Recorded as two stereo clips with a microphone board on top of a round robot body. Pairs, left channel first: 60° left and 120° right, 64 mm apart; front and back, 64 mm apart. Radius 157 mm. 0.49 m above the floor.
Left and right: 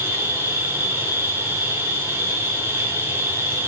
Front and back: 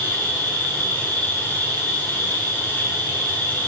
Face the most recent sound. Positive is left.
turn(degrees=-60)